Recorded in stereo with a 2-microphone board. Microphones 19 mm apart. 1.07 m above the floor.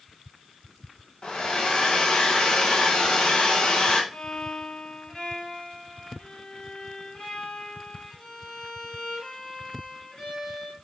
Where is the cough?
No cough in this recording.